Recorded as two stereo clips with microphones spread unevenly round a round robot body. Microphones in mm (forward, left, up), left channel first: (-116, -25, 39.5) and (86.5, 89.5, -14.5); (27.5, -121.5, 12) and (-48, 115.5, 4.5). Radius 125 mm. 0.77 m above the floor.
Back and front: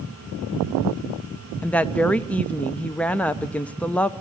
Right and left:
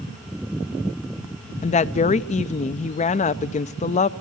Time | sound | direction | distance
1.6 | a woman speaking | 45° right | 0.5 m